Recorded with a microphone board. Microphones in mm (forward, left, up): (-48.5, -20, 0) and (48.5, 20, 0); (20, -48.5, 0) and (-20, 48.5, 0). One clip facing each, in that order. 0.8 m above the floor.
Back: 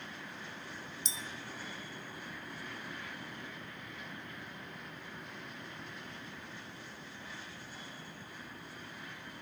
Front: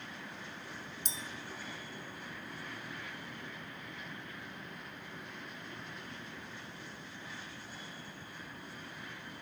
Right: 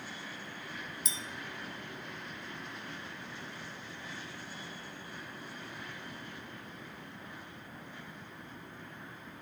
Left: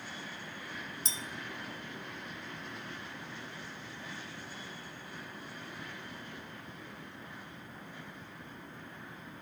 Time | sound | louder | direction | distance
1.1 | a clink | even, even | 55° left | 0.6 m